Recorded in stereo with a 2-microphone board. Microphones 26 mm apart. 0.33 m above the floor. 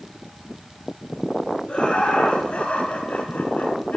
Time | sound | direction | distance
1.7 | laughter | 45° left (ahead or behind) | 5 m